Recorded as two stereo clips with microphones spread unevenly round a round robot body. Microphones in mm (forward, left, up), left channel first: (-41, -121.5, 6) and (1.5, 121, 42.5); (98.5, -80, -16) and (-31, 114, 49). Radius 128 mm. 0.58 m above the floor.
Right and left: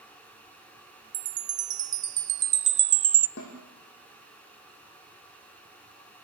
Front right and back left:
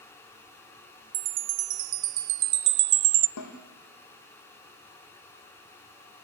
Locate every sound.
1.1 s a chime: 140° left, 0.6 m
3.4 s a snare drum: 55° right, 6.5 m